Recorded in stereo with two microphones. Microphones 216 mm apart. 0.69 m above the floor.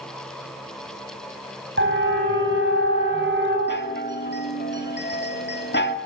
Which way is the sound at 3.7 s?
50° left (ahead or behind).